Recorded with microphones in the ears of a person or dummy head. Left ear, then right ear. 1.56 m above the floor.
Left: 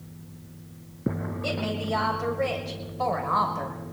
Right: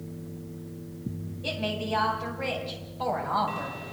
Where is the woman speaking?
65° left (ahead or behind), 7 m; by 3.8 s 55° left (ahead or behind), 6 m.